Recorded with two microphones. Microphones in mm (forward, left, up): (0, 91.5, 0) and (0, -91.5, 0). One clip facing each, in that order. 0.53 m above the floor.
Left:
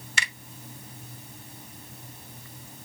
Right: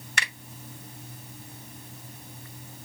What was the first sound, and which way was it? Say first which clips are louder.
A finger snap: right 1 dB; 60° right (ahead or behind).